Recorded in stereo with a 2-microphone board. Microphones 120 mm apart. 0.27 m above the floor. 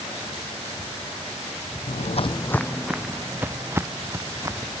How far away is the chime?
I don't hear a chime.